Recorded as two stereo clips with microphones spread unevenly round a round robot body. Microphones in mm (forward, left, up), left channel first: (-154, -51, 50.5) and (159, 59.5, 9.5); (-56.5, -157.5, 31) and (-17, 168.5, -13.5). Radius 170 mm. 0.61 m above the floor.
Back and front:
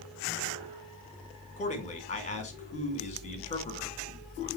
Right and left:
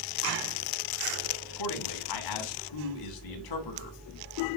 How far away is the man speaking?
About 2.5 m.